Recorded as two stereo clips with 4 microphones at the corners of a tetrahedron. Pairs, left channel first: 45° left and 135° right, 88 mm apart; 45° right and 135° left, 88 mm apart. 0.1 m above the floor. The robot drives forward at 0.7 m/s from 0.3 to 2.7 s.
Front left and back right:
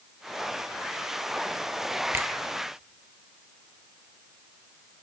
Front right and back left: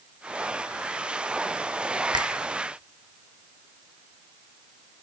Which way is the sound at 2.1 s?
165° left.